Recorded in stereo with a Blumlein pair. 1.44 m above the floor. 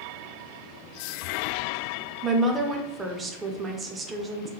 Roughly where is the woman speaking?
Ahead.